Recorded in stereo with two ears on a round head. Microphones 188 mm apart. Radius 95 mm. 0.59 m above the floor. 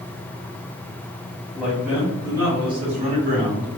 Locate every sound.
1.6 s a man speaking: 5° left (ahead or behind), 1.6 m; by 3.7 s 45° right (ahead or behind), 1.6 m